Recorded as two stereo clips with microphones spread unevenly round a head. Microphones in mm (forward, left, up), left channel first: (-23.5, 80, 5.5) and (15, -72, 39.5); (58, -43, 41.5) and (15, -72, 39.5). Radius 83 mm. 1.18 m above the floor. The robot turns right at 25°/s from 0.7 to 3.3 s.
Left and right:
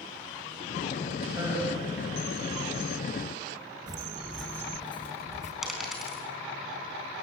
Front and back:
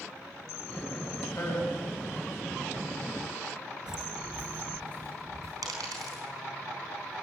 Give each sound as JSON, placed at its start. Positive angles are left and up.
{"t": 1.3, "sound": "a man speaking", "azimuth_deg": -5, "distance_m": 7.0}
{"t": 3.9, "sound": "footsteps", "azimuth_deg": -75, "distance_m": 1.3}
{"t": 5.6, "sound": "a dropped coin", "azimuth_deg": -160, "distance_m": 4.0}